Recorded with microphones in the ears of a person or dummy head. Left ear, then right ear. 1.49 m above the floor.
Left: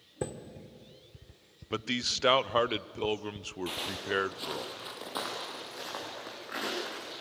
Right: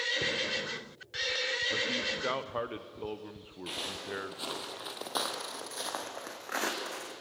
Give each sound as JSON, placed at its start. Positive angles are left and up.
{"t": 0.2, "sound": "a chime", "side_deg": 50, "distance_m": 2.0}
{"t": 1.7, "sound": "a man speaking", "side_deg": 75, "distance_m": 0.6}
{"t": 3.7, "sound": "footsteps", "side_deg": 5, "distance_m": 1.7}